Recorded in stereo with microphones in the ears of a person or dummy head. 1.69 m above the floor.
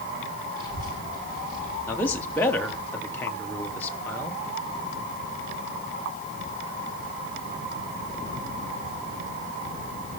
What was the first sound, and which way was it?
A child speaking, 25° right (ahead or behind).